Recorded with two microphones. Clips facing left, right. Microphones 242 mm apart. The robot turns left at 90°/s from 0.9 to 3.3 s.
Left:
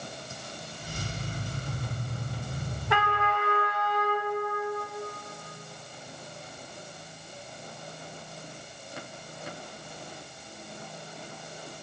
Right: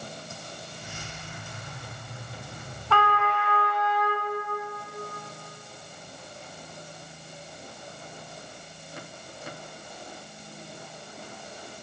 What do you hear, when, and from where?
2.9 s a trumpet: 165° left, 0.8 m; by 4.3 s 130° left, 0.8 m